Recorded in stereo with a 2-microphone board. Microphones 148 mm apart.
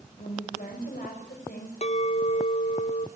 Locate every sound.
0.2 s a woman speaking: 75° left (ahead or behind), 6.5 m
1.8 s a clink: 50° left (ahead or behind), 1.0 m